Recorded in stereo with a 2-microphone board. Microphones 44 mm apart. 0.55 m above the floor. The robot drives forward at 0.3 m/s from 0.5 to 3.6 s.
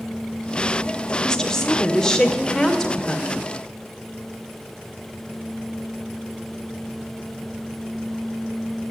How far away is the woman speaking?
About 1.6 m.